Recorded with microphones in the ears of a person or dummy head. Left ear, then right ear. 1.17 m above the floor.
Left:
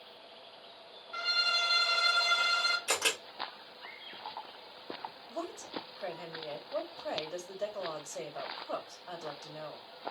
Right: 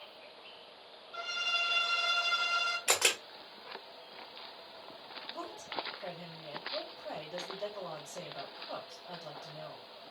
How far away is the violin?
About 0.7 m.